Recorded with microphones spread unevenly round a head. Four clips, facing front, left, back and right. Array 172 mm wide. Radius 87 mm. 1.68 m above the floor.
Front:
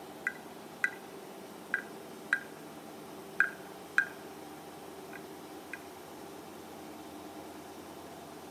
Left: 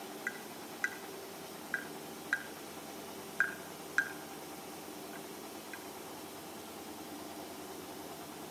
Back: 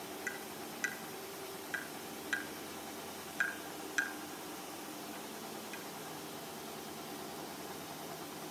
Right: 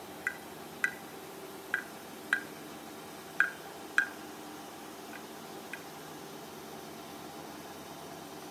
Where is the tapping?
70° right, 1.4 m.